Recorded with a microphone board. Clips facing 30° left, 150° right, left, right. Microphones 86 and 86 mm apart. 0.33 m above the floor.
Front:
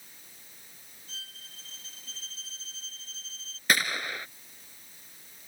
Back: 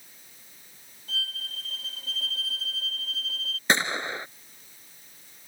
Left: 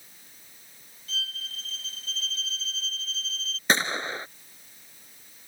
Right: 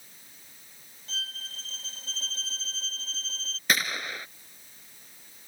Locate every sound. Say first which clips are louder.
1.1 s a violin: back 13 dB, left 3 dB; 145° right
3.7 s a gunshot: back 3 dB, left 3 dB; 150° left